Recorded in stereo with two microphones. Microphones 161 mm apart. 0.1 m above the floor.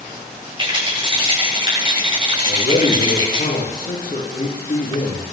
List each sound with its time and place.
0.6 s a rattle: 30° right (ahead or behind), 8 m
2.5 s a man speaking: 55° left (ahead or behind), 7 m